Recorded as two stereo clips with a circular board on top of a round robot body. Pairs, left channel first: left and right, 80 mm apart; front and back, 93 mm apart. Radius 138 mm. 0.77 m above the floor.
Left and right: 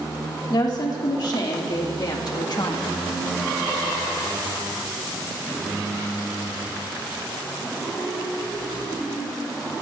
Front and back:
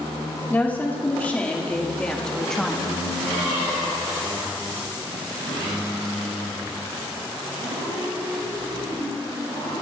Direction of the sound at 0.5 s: 70° left.